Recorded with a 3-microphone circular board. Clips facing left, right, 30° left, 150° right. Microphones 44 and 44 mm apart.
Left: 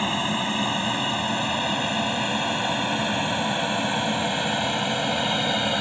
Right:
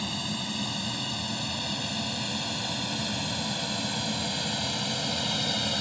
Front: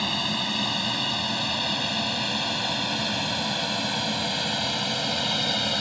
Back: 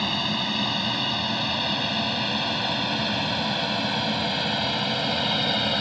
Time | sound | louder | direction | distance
0.0 | an aircraft | left 9 dB, back 1 dB | 125° left | ?